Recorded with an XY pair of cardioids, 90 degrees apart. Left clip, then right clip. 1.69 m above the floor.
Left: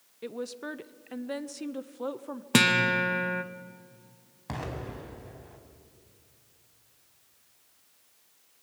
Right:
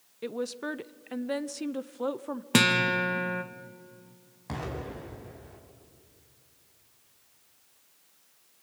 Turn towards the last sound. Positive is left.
turn(degrees=20)